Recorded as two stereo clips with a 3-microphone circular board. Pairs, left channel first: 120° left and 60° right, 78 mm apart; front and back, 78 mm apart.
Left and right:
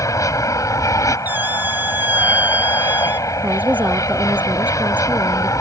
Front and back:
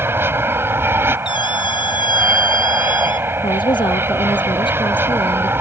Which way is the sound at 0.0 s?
135° left.